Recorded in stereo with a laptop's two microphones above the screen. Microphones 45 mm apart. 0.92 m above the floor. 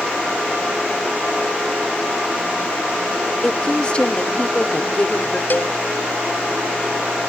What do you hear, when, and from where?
3.4 s a woman speaking: 30° left (ahead or behind)
5.5 s a cowbell: 50° left (ahead or behind)